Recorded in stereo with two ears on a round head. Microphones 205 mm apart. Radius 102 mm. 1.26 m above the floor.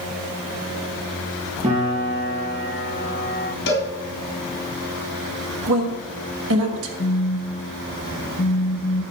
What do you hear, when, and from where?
1.6 s a piano: 30° right (ahead or behind), 4.5 m
3.7 s a cowbell: 55° left (ahead or behind), 3.5 m
5.7 s a woman speaking: 65° right (ahead or behind), 1.7 m
7.0 s a phone buzzing: 40° left (ahead or behind), 0.9 m